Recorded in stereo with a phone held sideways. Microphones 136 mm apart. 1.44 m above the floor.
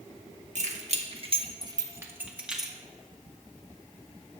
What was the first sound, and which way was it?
Keys jangling, 60° right (ahead or behind).